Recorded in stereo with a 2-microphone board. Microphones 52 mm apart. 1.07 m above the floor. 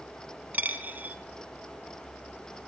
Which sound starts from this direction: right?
A dropped coin, at 0.5 s.